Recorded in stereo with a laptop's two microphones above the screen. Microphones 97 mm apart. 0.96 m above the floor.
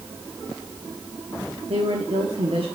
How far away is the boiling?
I don't hear boiling.